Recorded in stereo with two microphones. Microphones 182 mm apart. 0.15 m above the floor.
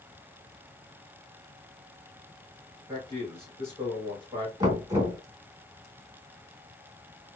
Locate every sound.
2.9 s a man speaking: 15° right (ahead or behind), 1.6 m
4.6 s knocking: 20° right (ahead or behind), 1.1 m